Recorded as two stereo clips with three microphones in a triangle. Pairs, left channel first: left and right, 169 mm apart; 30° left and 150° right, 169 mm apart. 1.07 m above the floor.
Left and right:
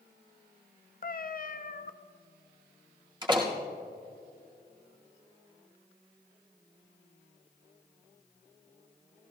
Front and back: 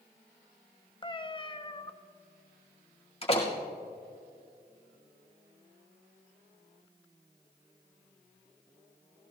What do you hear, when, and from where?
1.0 s a cat meowing: 85° left, 0.5 m
3.2 s a door slam: 25° right, 1.9 m